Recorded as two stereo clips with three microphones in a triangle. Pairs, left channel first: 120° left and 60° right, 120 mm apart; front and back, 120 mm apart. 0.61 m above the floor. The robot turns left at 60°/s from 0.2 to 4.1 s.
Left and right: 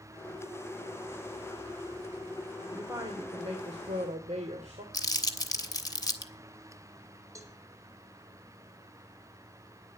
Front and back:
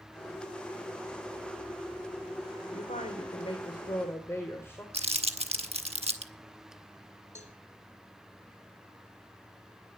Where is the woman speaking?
20° left, 1.9 m; by 4.8 s 70° right, 1.9 m.